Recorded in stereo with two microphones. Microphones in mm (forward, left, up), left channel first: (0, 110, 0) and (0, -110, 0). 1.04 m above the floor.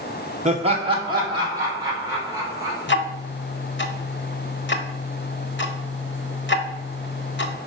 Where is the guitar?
I don't hear a guitar.